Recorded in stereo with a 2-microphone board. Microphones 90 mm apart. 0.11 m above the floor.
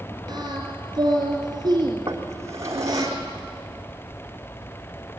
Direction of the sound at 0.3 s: 50° right (ahead or behind).